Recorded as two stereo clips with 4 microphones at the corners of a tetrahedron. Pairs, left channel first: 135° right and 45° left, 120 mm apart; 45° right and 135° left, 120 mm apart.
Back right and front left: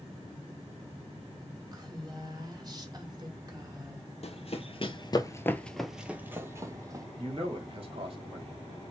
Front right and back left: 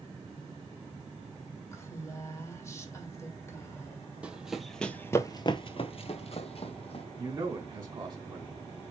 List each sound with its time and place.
1.7 s a woman speaking: 5° left, 1.8 m
4.2 s running footsteps: 145° right, 0.9 m; by 7.1 s 15° right, 1.2 m
7.2 s a man speaking: 85° left, 2.5 m